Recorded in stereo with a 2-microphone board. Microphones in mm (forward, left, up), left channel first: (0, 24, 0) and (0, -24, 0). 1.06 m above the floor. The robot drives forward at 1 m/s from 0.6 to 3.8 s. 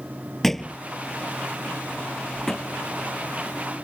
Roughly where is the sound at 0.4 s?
Centre.